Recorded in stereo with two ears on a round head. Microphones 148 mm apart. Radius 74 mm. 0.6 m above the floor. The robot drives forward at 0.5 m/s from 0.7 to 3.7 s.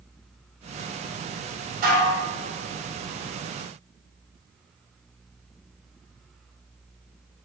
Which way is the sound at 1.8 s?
55° right (ahead or behind).